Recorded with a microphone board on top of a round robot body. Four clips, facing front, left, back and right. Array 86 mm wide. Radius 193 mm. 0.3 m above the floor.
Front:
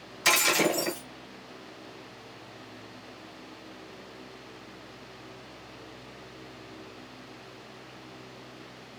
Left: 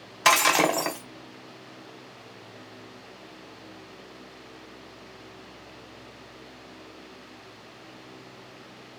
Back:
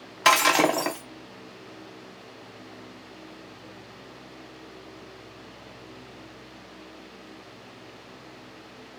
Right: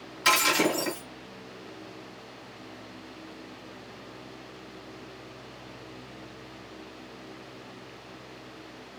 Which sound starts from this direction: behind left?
Breaking glass, at 0.2 s.